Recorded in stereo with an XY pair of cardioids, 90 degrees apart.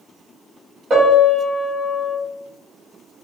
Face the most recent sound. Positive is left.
turn(degrees=-50)